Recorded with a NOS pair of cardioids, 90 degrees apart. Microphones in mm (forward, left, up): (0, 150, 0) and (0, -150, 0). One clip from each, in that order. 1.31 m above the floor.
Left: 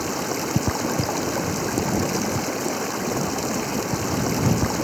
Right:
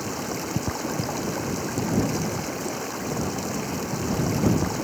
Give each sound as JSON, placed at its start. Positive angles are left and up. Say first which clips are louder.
{"t": 0.0, "sound": "running water", "louder": "left 4 dB", "azimuth_deg": 35}